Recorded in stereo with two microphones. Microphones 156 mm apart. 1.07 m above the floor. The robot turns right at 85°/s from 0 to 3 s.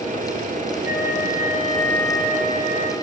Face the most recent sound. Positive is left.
turn(degrees=-100)